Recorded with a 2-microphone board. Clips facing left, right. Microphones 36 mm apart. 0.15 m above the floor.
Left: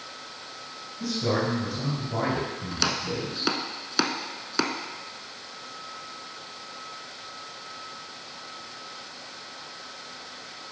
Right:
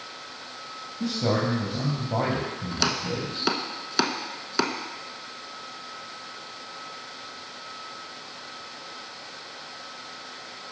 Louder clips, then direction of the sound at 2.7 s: Right 1 dB; 5° right (ahead or behind).